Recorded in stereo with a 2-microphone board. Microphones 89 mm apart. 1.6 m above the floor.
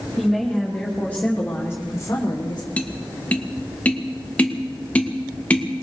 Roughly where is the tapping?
Centre.